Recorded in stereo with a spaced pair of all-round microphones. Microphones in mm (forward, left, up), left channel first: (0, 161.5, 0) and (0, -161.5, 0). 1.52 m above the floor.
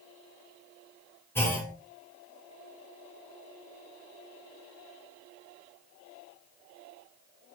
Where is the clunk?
5° left (ahead or behind), 0.7 m.